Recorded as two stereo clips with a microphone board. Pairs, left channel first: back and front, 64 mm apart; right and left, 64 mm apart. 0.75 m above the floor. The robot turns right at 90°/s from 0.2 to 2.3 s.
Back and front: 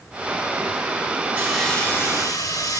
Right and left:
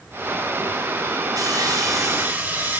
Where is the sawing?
70° left, 5 m; by 2.8 s 155° left, 5 m.